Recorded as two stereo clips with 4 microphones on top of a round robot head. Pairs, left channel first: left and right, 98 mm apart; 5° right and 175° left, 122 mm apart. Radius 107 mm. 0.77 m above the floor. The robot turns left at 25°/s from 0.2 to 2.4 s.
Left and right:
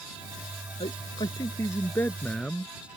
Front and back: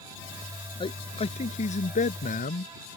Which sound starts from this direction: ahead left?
A man speaking, at 0.8 s.